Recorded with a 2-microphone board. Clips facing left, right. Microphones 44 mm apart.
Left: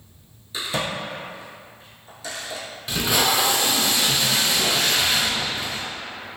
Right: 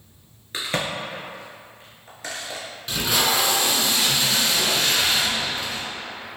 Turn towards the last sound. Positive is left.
turn(degrees=5)  # may be behind; listen again after turning